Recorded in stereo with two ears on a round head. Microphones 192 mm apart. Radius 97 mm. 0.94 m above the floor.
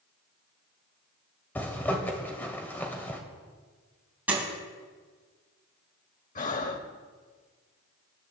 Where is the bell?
No bell in this recording.